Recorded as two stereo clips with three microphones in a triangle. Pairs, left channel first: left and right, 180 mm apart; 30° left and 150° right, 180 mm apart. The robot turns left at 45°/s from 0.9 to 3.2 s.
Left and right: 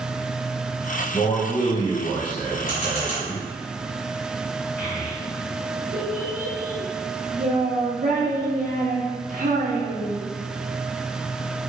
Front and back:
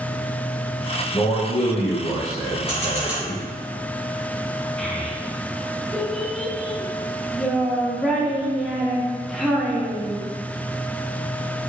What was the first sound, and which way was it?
A man speaking, 70° left.